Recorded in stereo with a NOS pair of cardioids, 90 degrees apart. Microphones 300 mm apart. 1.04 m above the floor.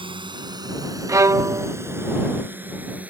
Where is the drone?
15° right; by 3.1 s 5° right.